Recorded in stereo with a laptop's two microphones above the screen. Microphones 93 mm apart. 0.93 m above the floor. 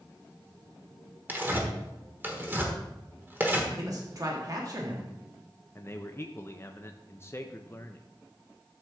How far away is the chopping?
No chopping in this recording.